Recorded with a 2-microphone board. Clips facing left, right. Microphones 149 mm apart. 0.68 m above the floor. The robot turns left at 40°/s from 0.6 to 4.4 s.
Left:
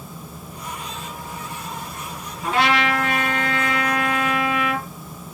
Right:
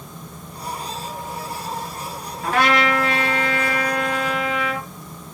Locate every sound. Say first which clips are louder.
2.4 s a trumpet: right 1 dB; 115° right, 2.5 m; by 4.8 s 165° left, 2.5 m